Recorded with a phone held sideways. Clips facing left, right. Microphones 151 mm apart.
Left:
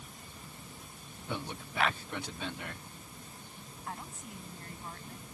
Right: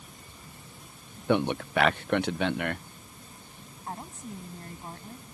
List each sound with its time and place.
1.3 s a man speaking: 75° right (ahead or behind)
3.9 s a woman speaking: 30° right (ahead or behind)